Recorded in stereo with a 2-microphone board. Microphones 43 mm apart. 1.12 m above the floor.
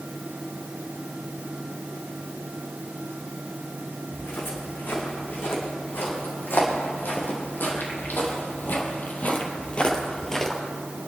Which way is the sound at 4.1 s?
70° left (ahead or behind).